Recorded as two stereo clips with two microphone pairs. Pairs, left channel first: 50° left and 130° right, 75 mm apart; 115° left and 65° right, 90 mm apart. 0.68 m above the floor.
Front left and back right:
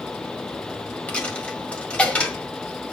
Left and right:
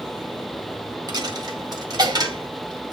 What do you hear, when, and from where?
1.1 s a dropped coin: 25° right, 1.6 m